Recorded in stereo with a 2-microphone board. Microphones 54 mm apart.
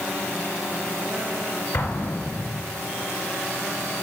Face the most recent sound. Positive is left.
turn(degrees=55)  # may be behind; listen again after turning